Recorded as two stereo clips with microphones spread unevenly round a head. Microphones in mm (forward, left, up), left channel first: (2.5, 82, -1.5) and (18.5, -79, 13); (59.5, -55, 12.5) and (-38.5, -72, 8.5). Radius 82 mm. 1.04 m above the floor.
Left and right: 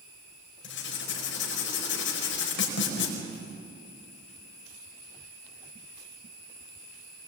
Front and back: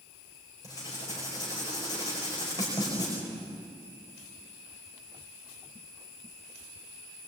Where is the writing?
80° left, 5 m.